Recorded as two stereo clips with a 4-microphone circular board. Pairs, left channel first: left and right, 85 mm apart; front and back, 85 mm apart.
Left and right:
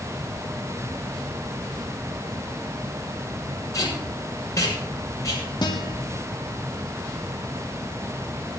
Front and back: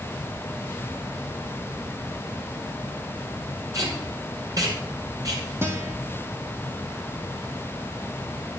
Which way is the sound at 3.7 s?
140° left.